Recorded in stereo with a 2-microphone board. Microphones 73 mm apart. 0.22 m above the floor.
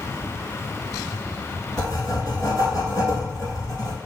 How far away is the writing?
About 0.9 m.